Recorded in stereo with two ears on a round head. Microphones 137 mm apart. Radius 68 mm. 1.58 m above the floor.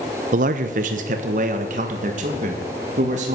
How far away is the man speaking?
About 0.7 m.